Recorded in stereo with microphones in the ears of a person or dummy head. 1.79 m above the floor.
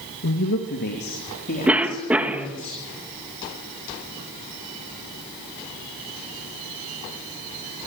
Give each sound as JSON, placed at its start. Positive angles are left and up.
{"t": 0.2, "sound": "a woman speaking", "side_deg": 60, "distance_m": 2.0}
{"t": 1.7, "sound": "a cough", "side_deg": -10, "distance_m": 2.5}